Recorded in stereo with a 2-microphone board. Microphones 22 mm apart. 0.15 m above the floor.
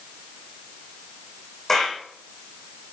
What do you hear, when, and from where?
1.7 s a clap: 10° left (ahead or behind), 7.5 m